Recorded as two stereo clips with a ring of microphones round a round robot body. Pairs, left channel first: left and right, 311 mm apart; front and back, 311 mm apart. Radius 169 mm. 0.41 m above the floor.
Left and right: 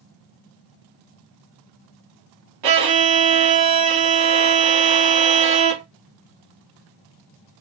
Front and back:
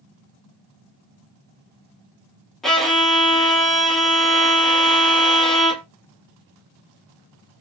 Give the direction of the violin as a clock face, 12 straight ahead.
3 o'clock.